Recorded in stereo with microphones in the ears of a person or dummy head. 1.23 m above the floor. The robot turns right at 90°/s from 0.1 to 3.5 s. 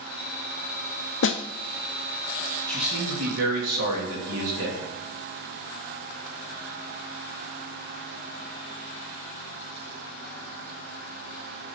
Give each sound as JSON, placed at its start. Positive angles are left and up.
{"t": 1.2, "sound": "a snare drum", "side_deg": 60, "distance_m": 0.6}
{"t": 2.7, "sound": "a man speaking", "azimuth_deg": 165, "distance_m": 2.5}